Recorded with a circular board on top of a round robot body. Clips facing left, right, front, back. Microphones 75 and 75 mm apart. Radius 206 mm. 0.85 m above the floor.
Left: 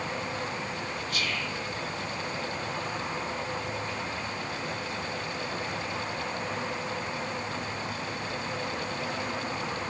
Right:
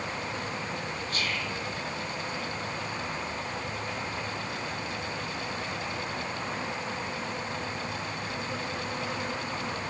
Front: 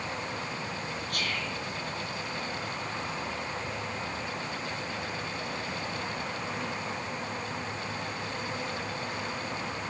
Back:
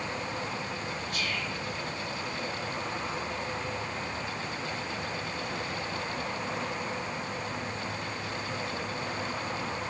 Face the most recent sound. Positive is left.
turn(degrees=-35)